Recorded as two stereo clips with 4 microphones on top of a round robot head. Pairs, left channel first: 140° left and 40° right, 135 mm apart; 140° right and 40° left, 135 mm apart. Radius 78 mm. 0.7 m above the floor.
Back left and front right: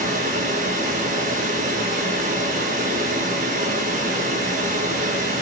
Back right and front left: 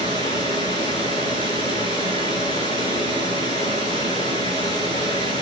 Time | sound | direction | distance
0.0 | running water | 15° right | 9.5 m